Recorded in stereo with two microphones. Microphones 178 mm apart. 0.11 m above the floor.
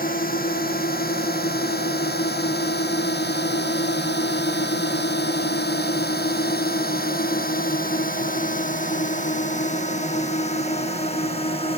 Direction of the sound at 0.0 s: 55° left (ahead or behind).